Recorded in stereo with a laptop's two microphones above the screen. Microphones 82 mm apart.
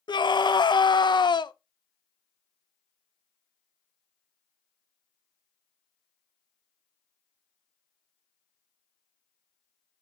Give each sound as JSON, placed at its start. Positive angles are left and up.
{"t": 0.1, "sound": "a scream", "side_deg": 65, "distance_m": 0.6}